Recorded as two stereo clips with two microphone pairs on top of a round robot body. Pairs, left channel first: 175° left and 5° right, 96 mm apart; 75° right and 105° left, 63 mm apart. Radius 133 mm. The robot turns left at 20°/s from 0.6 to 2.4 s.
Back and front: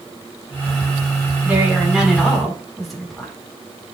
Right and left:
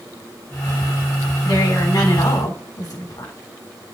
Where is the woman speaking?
70° right, 7 m; by 3.3 s 90° right, 7 m.